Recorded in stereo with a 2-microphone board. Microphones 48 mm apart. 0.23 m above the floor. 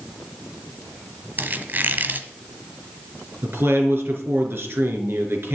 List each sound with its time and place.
1.4 s a squeak: 45° right (ahead or behind), 1.2 m
3.4 s a man speaking: 60° right (ahead or behind), 4 m